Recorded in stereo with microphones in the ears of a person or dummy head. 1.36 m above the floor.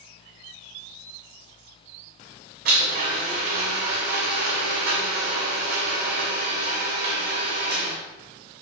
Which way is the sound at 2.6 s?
60° right (ahead or behind).